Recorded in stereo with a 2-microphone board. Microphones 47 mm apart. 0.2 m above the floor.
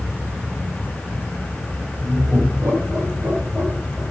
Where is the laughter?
75° right (ahead or behind), 6.5 m; by 4.0 s 80° right, 7.5 m.